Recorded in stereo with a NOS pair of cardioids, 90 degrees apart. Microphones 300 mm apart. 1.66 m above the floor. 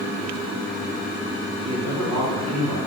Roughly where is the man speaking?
Ahead right.